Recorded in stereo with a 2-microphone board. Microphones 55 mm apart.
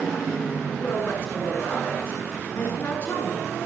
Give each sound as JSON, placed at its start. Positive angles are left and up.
{"t": 0.8, "sound": "a woman speaking", "side_deg": 45, "distance_m": 1.5}